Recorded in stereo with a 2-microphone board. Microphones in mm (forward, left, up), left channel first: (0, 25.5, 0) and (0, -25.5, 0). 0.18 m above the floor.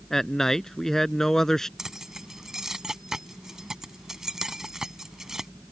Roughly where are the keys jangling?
Centre.